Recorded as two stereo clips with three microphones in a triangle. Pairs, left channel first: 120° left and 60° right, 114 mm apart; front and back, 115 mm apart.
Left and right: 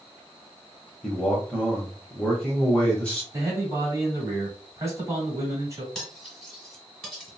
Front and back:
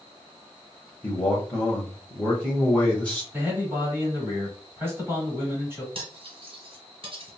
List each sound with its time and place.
1.0 s a man speaking: 60° left, 0.9 m
3.3 s a man speaking: 115° right, 1.5 m
6.0 s cutlery clinking: 150° right, 1.4 m